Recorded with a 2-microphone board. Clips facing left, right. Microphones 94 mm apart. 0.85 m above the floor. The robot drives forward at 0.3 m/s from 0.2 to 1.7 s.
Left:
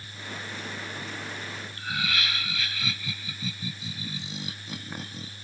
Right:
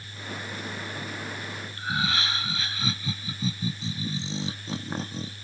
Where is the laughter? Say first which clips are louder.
Right 3 dB; 30° right (ahead or behind).